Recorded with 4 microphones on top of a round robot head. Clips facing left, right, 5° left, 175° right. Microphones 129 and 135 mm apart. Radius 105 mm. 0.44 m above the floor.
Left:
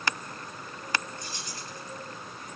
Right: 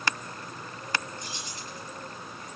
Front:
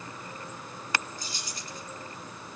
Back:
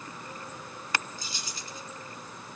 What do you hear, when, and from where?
1.2 s keys jangling: 165° right, 6 m